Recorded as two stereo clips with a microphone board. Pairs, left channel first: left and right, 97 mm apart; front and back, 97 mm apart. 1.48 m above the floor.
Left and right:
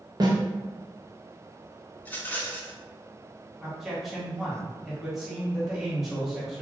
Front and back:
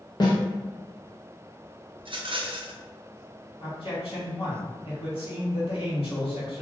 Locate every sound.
0.2 s a snare drum: 40° right, 0.8 m
2.0 s a rattle: 160° left, 0.6 m
3.6 s a man speaking: 5° right, 1.7 m